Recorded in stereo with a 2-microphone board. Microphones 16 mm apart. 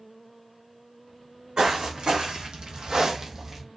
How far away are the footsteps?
About 1.4 m.